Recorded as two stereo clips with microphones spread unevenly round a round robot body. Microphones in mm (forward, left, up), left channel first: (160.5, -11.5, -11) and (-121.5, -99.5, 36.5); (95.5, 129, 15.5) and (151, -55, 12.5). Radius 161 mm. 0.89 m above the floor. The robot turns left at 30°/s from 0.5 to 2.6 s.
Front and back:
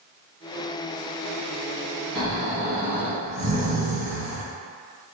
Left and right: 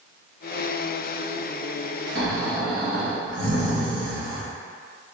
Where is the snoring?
85° right, 1.7 m; by 4.5 s 100° right, 1.7 m.